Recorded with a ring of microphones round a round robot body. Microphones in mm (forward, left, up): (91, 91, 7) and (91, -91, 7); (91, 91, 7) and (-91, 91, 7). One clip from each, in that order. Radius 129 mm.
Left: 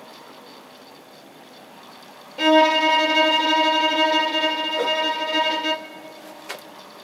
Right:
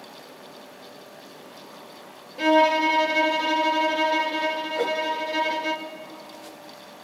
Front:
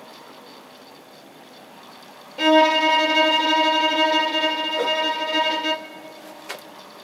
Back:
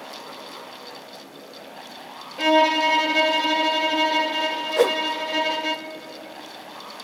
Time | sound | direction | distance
2.4 | a violin | 55° left | 0.9 m
4.8 | a whoosh | 175° left | 0.5 m